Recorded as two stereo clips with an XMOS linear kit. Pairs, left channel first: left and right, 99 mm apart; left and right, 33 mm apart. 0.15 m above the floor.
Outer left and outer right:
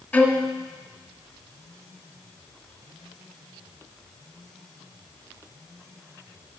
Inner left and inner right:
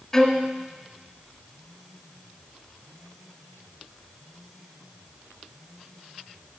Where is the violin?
15° left (ahead or behind), 1.0 m.